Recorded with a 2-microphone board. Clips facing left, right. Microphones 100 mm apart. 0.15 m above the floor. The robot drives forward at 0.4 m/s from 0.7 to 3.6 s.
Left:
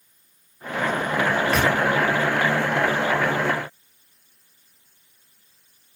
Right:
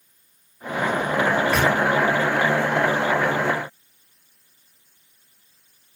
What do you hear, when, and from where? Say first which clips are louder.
1.3 s a microwave: right 1 dB; 15° left (ahead or behind), 1.7 m; by 1.8 s 20° left (ahead or behind), 1.6 m